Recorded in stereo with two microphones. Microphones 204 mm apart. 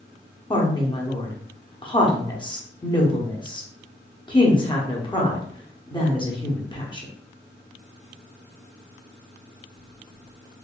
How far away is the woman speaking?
About 0.9 m.